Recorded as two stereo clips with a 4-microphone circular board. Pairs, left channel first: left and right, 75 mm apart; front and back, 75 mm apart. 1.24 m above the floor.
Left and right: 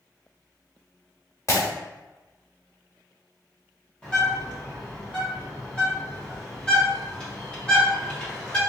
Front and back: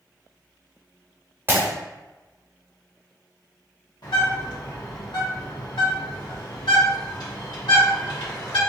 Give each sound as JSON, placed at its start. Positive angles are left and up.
{"t": 1.5, "sound": "breaking glass", "azimuth_deg": 125, "distance_m": 1.3}
{"t": 4.0, "sound": "a bird", "azimuth_deg": 15, "distance_m": 1.8}